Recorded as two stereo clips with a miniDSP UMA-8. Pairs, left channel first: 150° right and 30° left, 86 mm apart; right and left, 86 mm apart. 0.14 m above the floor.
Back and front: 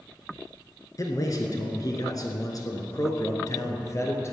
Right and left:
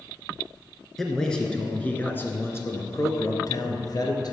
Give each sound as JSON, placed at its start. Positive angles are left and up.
{"t": 1.0, "sound": "a man speaking", "azimuth_deg": -175, "distance_m": 1.6}